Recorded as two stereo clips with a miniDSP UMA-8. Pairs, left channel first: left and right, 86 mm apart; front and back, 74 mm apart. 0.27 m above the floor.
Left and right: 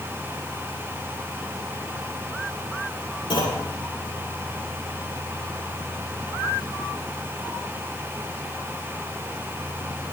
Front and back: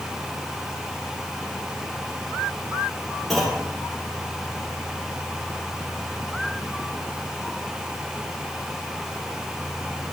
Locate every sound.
3.3 s a clunk: 90° left, 10 m